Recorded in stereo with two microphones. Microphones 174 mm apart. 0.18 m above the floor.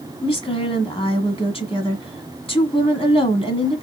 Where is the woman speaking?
35° left (ahead or behind), 1.3 m.